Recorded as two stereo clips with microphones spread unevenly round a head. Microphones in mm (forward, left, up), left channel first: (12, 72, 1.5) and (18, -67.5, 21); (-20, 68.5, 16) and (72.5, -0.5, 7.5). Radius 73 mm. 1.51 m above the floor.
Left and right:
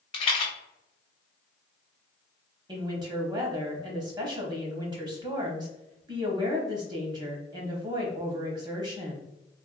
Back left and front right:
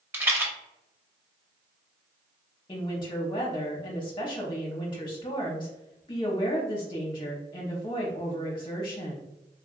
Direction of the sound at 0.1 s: 35° left.